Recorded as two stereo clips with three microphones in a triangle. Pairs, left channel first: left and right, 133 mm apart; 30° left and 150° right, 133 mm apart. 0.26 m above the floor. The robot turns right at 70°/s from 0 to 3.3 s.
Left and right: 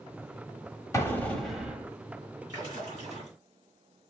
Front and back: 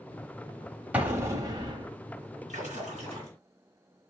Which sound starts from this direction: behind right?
A splash, at 2.5 s.